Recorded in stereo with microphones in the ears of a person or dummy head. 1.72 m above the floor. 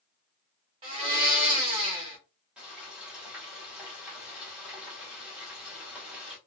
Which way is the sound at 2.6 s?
10° right (ahead or behind).